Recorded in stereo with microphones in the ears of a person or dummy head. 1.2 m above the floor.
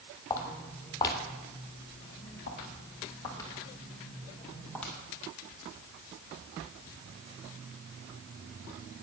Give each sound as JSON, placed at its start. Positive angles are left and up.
{"t": 0.3, "sound": "footsteps", "side_deg": 15, "distance_m": 2.0}